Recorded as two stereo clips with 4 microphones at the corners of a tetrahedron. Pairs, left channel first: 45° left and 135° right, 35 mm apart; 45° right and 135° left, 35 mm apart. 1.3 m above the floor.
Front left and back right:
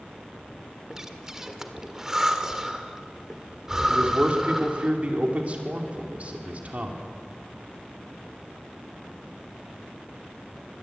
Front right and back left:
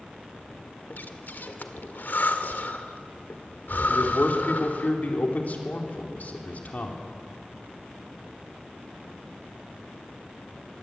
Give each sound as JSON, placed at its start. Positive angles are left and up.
{"t": 0.9, "sound": "breathing", "azimuth_deg": -65, "distance_m": 1.7}
{"t": 3.9, "sound": "a man speaking", "azimuth_deg": -85, "distance_m": 4.0}